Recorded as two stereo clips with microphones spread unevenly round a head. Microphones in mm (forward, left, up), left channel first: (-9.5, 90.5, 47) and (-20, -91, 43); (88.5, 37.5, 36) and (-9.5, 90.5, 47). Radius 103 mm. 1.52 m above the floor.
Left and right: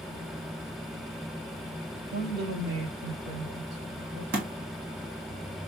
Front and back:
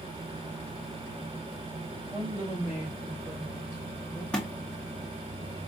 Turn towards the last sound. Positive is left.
turn(degrees=-115)